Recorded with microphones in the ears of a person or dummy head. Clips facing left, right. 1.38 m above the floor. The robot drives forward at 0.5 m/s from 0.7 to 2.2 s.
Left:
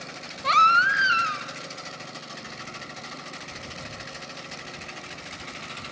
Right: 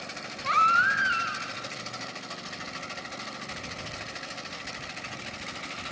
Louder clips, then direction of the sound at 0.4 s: Left 4 dB; 60° left (ahead or behind).